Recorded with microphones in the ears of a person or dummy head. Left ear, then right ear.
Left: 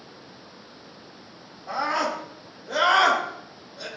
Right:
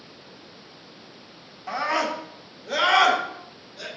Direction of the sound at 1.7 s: 65° right (ahead or behind).